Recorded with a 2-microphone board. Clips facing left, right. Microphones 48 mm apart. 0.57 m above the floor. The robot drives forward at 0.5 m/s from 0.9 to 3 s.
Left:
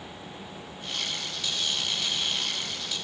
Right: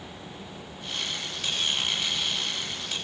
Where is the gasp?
I don't hear a gasp.